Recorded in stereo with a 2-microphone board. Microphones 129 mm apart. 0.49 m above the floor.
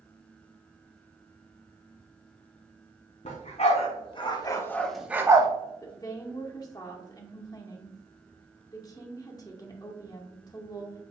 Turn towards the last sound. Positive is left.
turn(degrees=30)  # may be behind; listen again after turning